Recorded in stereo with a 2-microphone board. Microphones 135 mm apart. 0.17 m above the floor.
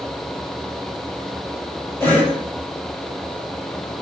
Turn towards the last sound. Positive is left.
turn(degrees=15)  # may be behind; listen again after turning